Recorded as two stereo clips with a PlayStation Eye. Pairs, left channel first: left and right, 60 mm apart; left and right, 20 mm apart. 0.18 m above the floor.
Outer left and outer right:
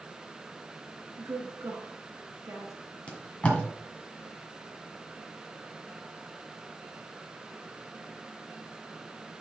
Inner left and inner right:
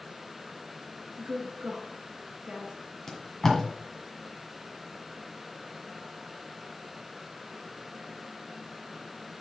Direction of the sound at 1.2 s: 55° right (ahead or behind).